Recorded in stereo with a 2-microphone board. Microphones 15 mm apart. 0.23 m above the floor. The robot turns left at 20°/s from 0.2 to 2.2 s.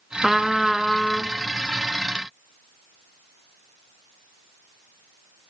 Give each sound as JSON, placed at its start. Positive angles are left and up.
{"t": 0.2, "sound": "a trumpet", "side_deg": -15, "distance_m": 1.0}